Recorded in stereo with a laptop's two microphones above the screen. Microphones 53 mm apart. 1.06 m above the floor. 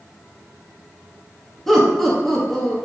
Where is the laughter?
5° left (ahead or behind), 0.8 m.